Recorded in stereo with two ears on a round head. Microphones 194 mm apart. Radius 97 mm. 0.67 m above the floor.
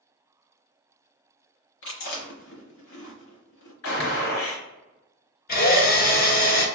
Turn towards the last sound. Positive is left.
turn(degrees=45)  # may be behind; listen again after turning